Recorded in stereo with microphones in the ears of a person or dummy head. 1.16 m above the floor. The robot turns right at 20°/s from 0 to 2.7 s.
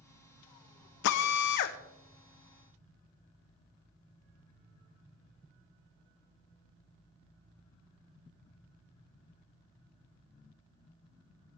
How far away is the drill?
About 0.9 m.